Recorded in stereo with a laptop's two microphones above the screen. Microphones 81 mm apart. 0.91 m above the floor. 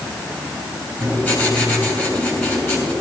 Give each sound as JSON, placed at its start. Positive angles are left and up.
{"t": 1.0, "sound": "writing", "side_deg": 25, "distance_m": 3.5}